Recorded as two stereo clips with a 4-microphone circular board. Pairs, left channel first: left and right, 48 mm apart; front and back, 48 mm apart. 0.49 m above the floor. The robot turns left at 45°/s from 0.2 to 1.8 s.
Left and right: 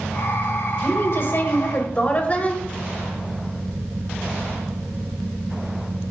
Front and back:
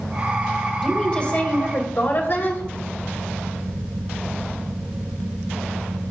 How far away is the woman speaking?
About 2.5 m.